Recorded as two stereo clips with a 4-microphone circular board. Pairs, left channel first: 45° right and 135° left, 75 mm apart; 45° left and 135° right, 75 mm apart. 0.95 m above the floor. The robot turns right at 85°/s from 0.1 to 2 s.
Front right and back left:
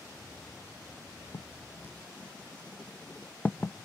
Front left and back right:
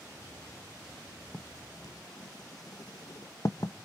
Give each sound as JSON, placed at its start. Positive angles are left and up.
{"t": 1.3, "sound": "writing", "azimuth_deg": -30, "distance_m": 0.8}